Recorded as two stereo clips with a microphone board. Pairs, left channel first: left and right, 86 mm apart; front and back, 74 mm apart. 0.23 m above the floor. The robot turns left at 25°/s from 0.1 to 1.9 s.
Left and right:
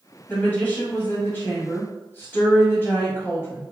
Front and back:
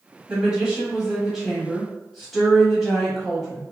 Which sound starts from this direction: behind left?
A woman speaking, at 0.3 s.